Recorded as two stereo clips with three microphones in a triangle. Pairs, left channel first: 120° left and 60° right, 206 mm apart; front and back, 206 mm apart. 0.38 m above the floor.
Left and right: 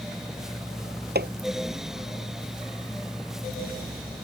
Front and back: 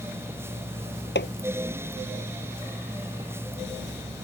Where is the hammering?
25° right.